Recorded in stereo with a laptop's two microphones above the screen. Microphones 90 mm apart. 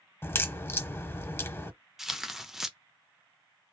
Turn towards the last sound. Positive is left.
turn(degrees=-5)  # may be behind; listen again after turning